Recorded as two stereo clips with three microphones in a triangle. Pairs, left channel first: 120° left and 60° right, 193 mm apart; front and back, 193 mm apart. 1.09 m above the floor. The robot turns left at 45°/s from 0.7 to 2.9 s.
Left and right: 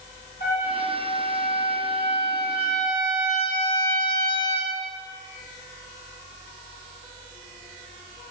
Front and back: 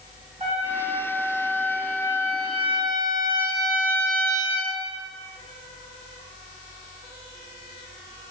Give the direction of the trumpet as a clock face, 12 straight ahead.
8 o'clock.